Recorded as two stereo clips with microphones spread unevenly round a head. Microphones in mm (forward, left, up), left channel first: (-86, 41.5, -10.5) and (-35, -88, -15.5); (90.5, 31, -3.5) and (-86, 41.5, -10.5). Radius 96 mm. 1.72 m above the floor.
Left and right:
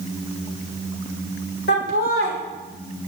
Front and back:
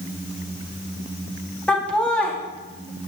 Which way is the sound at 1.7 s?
80° left.